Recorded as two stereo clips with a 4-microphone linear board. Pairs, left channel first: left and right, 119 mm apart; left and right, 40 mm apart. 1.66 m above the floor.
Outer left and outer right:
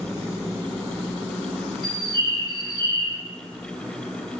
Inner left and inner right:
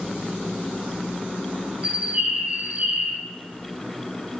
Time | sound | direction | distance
1.8 | a bird | 35° right (ahead or behind) | 1.7 m